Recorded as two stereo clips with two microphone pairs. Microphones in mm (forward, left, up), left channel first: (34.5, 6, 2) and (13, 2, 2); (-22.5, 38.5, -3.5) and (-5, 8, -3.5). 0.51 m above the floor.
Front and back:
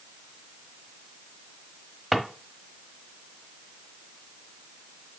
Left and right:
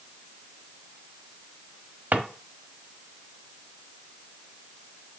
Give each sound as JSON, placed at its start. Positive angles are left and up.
{"t": 2.1, "sound": "a drawer", "azimuth_deg": -90, "distance_m": 1.0}